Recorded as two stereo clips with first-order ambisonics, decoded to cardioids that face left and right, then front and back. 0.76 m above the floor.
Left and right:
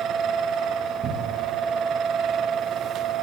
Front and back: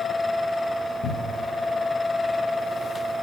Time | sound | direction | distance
1.0 | a cupboard door | 40° right | 0.7 m